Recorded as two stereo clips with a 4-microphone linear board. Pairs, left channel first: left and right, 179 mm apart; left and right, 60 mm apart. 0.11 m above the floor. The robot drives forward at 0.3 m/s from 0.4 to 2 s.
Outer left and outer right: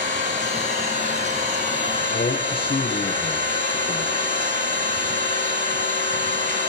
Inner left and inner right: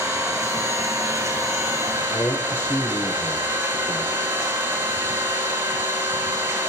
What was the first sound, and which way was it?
An engine running, 70° right (ahead or behind).